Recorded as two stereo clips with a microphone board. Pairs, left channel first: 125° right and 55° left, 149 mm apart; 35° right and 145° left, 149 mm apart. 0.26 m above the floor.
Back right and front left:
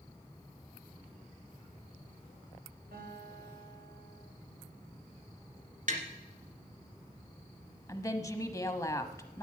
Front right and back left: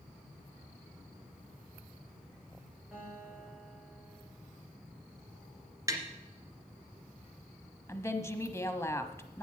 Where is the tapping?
80° left, 1.9 m.